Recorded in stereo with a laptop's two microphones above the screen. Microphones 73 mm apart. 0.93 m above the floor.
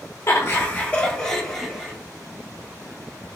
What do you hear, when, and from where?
0.3 s laughter: 45° left (ahead or behind), 0.6 m; by 1.9 s centre (ahead or behind), 1.6 m